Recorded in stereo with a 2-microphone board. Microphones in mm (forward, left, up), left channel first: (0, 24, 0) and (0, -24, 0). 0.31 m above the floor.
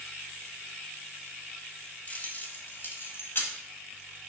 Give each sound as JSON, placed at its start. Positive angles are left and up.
{"t": 2.1, "sound": "keys jangling", "side_deg": 30, "distance_m": 1.0}